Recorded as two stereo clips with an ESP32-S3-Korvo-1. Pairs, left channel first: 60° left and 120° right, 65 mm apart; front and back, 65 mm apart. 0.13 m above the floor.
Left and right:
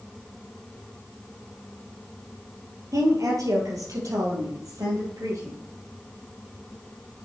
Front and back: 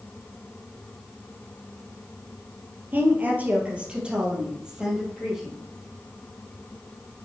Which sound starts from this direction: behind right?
A woman speaking, at 2.9 s.